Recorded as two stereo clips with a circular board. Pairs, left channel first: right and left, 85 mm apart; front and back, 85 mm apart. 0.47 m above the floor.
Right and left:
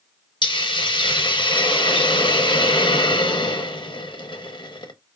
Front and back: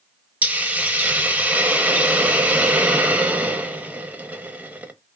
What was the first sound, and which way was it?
A hiss, 110° right.